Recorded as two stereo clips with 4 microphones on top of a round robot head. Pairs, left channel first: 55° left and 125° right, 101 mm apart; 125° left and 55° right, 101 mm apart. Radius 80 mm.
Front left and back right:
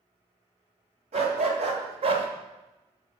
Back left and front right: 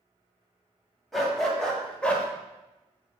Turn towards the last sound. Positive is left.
turn(degrees=-155)